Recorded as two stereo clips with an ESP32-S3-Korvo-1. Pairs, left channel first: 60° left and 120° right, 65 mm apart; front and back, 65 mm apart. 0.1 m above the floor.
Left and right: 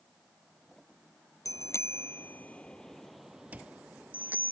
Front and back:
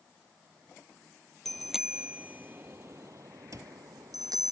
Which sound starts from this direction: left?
A bicycle bell, at 1.4 s.